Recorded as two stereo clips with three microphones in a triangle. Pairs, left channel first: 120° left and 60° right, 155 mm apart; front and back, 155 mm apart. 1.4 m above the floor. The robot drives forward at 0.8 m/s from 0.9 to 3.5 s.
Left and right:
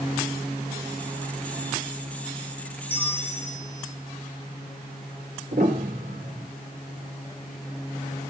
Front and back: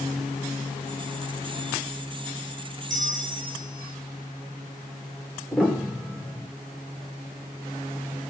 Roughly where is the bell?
Behind.